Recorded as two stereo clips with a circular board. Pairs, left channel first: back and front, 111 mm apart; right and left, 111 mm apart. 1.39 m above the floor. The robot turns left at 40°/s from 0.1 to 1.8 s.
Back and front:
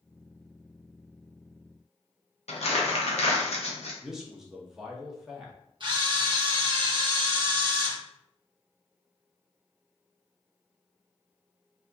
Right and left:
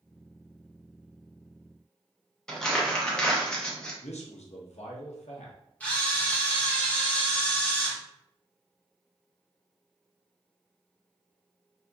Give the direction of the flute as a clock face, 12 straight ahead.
I don't hear a flute.